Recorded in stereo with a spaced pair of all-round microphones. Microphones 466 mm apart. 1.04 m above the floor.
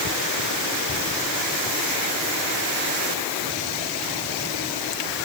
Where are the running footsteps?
No running footsteps in this recording.